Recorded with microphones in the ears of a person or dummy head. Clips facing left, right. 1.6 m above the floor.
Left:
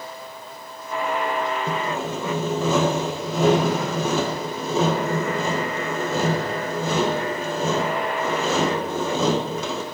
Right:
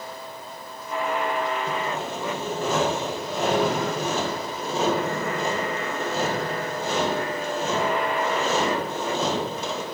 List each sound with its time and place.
1.7 s sawing: 75° left (ahead or behind), 1.3 m